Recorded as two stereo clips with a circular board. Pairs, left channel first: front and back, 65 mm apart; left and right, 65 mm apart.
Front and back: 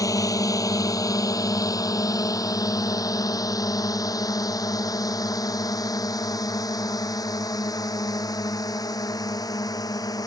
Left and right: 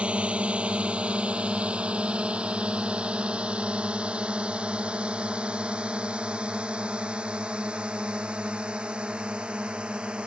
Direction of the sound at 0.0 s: 20° right.